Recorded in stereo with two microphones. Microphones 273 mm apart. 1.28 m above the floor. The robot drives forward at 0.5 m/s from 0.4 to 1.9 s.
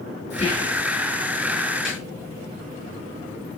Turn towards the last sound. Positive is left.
turn(degrees=0)  # may be behind; listen again after turning